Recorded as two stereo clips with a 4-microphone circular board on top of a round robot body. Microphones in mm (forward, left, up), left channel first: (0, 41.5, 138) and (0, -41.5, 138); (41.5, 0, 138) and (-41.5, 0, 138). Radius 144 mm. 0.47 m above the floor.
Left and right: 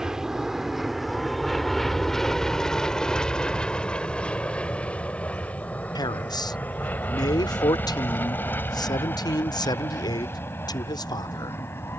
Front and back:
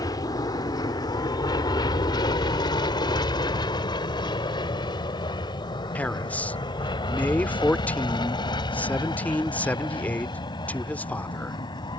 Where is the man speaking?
70° left.